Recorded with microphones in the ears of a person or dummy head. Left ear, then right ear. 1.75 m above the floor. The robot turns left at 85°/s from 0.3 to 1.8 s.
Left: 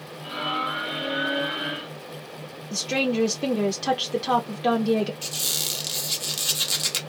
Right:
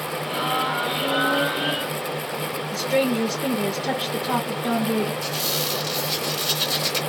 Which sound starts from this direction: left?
A woman speaking, at 2.7 s.